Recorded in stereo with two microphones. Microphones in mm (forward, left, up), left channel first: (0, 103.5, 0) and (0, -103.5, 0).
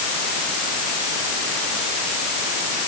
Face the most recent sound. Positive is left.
No sound to turn to.